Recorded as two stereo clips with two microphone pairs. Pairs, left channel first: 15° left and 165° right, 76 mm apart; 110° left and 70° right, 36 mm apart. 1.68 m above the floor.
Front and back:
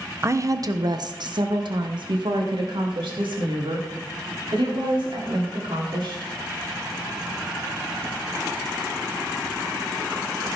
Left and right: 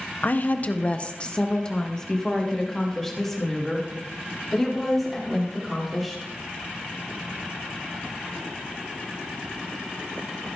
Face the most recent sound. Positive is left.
turn(degrees=-160)